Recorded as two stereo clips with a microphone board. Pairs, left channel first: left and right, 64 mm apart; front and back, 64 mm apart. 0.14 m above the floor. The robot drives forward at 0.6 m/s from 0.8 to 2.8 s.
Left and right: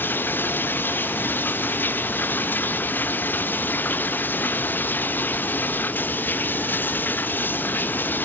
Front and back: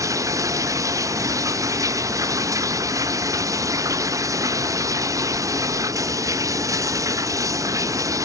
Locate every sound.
0.0 s running water: 150° left